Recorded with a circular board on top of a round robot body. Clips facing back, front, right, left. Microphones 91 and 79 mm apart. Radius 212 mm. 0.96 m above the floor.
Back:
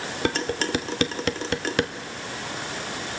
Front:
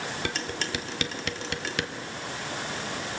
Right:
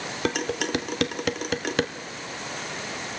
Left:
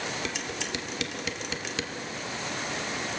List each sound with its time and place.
0.2 s dishes clattering: 130° right, 0.7 m